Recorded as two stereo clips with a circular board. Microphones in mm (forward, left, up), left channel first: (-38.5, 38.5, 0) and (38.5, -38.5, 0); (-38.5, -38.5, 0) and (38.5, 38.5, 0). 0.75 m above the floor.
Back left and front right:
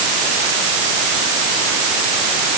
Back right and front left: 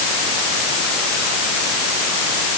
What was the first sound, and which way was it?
Only background noise.